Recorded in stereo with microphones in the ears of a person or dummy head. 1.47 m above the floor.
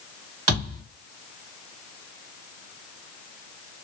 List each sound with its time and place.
0.5 s a thud: 45° right (ahead or behind), 2 m